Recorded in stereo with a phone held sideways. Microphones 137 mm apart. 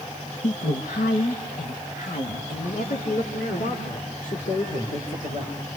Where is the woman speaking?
65° left (ahead or behind), 1.3 m; by 5.5 s 85° left, 5 m.